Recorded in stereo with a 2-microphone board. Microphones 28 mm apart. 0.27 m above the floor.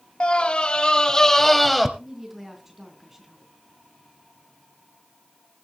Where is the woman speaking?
15° right (ahead or behind), 3 m.